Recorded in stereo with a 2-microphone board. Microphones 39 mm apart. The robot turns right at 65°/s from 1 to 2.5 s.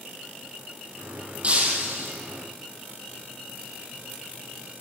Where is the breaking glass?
145° right, 2 m; by 2.1 s 100° right, 2 m.